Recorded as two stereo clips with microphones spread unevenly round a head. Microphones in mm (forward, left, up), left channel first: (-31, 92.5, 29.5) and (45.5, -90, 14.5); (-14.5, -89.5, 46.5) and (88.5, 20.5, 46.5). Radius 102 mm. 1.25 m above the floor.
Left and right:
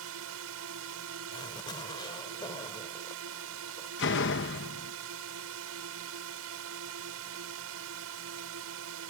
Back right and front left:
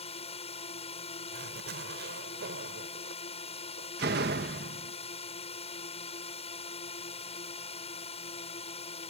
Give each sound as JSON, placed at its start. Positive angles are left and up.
{"t": 0.0, "sound": "a drone", "azimuth_deg": -85}
{"t": 1.3, "sound": "a zipper", "azimuth_deg": 45}
{"t": 4.0, "sound": "a door slam", "azimuth_deg": 80}